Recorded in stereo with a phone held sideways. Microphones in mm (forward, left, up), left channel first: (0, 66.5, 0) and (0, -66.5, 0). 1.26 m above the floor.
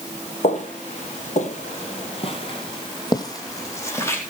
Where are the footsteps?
55° left (ahead or behind), 3 m; by 4.2 s 20° left (ahead or behind), 3.5 m.